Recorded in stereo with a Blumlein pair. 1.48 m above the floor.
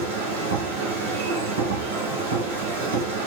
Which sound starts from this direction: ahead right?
A machine running, at 0.0 s.